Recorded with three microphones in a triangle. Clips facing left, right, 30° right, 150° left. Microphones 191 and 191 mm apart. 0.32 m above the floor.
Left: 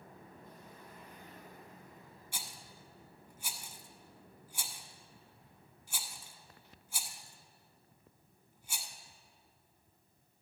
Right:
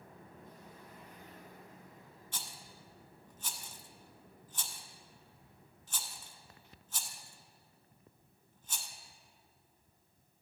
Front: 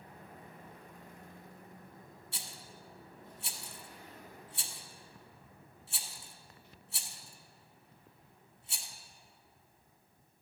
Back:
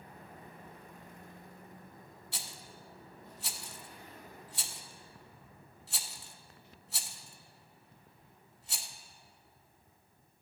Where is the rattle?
170° left, 0.7 m.